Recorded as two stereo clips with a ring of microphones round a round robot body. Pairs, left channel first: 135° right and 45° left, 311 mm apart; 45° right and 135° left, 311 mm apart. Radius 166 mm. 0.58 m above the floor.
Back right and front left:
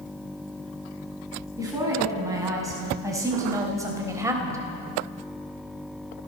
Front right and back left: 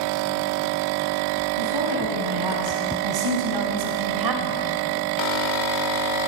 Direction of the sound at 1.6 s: 125° left.